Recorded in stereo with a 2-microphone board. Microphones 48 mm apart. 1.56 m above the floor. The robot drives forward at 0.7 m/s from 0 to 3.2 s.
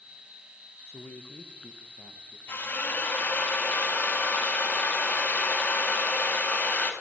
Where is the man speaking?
65° left (ahead or behind), 0.9 m; by 2.4 s 30° left (ahead or behind), 1.6 m.